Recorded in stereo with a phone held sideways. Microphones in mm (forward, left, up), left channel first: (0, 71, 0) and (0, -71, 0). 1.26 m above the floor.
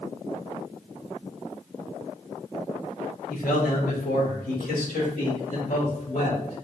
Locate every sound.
3.3 s a man speaking: 75° left (ahead or behind), 1.1 m; by 6.7 s 85° left, 3 m